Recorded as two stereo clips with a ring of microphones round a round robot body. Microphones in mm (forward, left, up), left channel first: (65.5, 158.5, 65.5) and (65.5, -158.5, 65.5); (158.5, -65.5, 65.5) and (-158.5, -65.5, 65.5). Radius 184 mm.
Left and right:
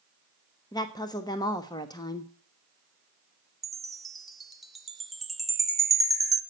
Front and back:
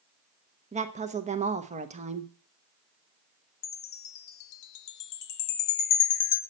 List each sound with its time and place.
0.7 s a woman speaking: 150° left, 1.1 m
3.6 s a chime: straight ahead, 0.9 m